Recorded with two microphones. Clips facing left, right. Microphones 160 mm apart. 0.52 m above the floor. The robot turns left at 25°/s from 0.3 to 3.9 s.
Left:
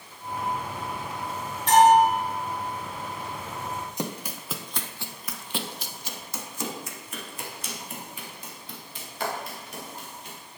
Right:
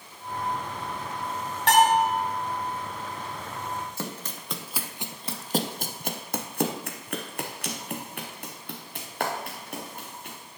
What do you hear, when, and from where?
1.7 s a bell: 70° right (ahead or behind), 3 m; by 2.1 s 80° right, 3 m
4.0 s running footsteps: 15° left (ahead or behind), 0.9 m; by 10.4 s 60° right (ahead or behind), 3 m